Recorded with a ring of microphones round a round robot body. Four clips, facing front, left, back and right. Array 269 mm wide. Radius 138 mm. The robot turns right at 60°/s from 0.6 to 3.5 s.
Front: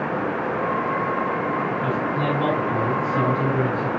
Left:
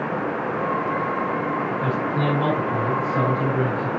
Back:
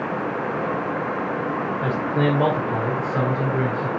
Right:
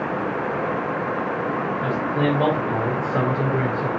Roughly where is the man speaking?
Behind.